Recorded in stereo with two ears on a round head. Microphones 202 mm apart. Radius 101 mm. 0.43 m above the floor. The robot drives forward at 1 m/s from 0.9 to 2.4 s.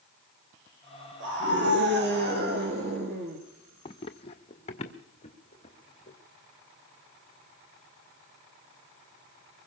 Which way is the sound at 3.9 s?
25° left (ahead or behind).